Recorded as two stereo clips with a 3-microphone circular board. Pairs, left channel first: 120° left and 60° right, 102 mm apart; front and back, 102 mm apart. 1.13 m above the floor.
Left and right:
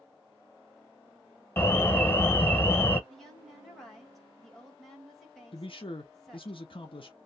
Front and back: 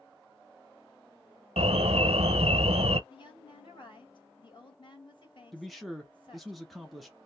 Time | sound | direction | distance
1.6 | an alarm | 175° right | 0.6 m
3.1 | a woman speaking | 30° left | 1.7 m
5.5 | a man speaking | 90° left | 0.9 m